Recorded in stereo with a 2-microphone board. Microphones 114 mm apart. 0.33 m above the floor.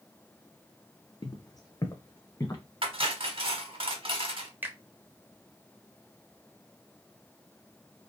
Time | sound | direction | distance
1.2 | footsteps | 40° left (ahead or behind) | 0.5 m
2.8 | cutlery clinking | 55° right (ahead or behind) | 0.8 m
4.6 | a finger snap | 15° right (ahead or behind) | 0.8 m